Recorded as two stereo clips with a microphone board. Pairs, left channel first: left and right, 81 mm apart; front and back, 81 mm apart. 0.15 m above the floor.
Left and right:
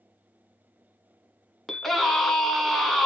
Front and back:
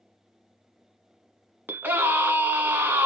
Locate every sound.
1.7 s a scream: 175° left, 1.1 m